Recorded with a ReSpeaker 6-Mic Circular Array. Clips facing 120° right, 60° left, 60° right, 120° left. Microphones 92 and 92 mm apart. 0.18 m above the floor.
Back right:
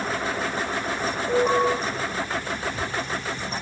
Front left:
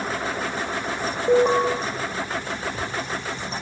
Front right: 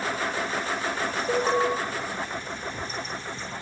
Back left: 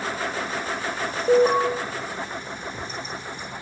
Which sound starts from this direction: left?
An alarm, at 1.3 s.